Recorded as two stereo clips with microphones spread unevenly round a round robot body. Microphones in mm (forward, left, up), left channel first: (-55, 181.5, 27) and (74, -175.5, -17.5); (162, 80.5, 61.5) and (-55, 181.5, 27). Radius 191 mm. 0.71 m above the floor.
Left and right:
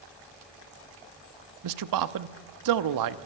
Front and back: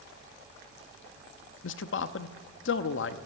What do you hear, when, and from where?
1.6 s a man speaking: 65° right, 0.8 m